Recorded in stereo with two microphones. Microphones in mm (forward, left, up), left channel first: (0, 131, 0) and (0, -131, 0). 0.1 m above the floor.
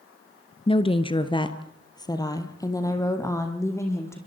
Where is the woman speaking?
20° left (ahead or behind), 1.1 m; by 4.2 s 10° left (ahead or behind), 4.5 m.